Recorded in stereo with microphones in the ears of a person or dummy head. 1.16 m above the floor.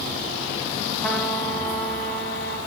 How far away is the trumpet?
About 4 m.